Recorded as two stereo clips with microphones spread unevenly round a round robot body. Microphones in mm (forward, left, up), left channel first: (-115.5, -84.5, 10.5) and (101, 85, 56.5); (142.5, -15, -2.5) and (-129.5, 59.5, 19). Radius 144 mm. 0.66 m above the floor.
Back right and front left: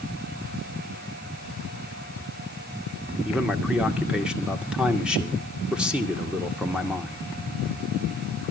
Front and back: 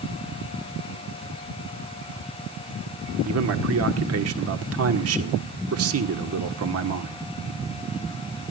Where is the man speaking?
130° left, 1.8 m.